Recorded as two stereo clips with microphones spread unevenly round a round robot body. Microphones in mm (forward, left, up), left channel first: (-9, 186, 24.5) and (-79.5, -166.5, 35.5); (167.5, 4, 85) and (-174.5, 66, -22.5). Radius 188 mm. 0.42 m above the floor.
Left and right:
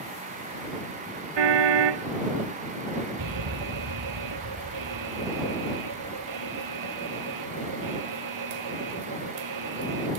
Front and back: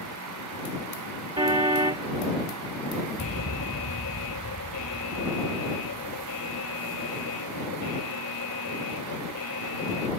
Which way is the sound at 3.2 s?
65° right.